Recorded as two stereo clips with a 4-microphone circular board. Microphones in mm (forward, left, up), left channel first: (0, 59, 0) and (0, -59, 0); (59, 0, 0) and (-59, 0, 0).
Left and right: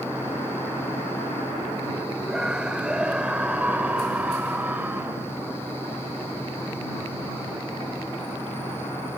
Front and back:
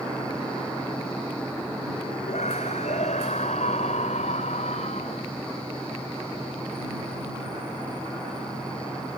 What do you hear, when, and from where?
2.3 s a scream: 5° right; by 5.2 s 15° right